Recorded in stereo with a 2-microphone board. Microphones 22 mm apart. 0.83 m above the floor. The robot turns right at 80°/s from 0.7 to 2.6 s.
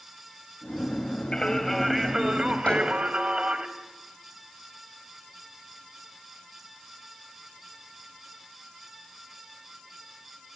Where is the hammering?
75° left (ahead or behind), 5 m.